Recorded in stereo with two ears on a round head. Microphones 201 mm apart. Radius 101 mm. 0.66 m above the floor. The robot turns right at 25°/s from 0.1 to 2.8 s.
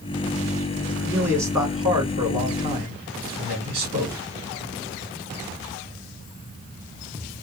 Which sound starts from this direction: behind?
A man speaking, at 1.0 s.